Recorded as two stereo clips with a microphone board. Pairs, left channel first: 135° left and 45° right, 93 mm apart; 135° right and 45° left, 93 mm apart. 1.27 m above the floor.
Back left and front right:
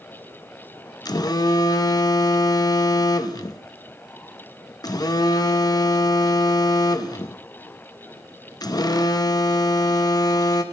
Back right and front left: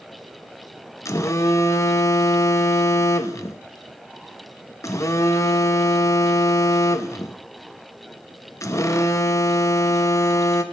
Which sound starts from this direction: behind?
A phone buzzing, at 1.1 s.